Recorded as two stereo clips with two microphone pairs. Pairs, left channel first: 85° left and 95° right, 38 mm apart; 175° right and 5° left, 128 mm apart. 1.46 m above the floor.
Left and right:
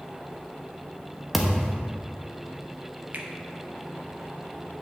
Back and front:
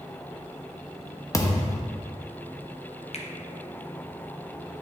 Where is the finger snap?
140° right, 0.8 m.